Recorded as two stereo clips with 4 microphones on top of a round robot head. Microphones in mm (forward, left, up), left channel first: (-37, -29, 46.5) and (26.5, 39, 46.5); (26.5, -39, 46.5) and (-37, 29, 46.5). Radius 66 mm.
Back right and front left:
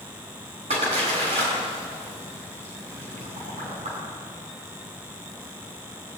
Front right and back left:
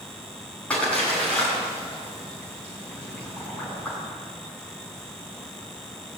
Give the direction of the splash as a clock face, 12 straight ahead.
11 o'clock.